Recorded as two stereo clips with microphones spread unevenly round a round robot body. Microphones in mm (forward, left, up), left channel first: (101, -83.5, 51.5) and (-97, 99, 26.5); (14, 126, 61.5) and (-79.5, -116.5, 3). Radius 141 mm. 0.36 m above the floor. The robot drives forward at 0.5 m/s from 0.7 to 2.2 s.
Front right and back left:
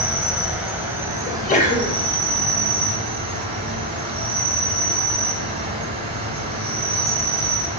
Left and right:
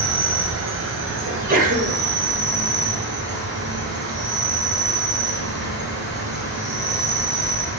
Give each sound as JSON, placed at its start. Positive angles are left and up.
{"t": 0.0, "sound": "an insect", "azimuth_deg": -140, "distance_m": 1.4}
{"t": 1.3, "sound": "a sneeze", "azimuth_deg": -90, "distance_m": 1.3}